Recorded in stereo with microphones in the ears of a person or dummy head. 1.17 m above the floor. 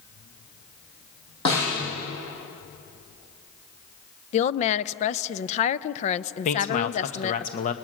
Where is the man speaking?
40° left (ahead or behind), 1.2 m.